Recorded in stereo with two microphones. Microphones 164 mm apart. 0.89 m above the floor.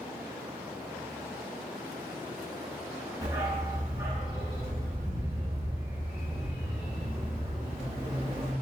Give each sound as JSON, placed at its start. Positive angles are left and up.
{"t": 3.2, "sound": "a dog barking", "side_deg": -25, "distance_m": 1.6}